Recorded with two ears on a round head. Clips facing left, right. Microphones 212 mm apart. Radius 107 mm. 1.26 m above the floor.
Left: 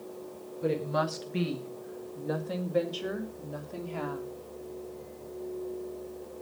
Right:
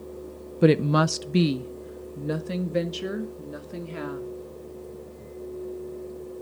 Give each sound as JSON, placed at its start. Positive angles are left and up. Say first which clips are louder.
{"t": 0.6, "sound": "a woman speaking", "louder": "right 10 dB", "side_deg": -80, "distance_m": 0.7}